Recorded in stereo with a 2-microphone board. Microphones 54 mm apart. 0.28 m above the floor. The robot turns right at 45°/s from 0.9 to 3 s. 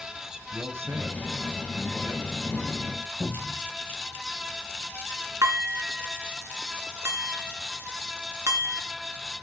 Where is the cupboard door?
60° right (ahead or behind), 7 m.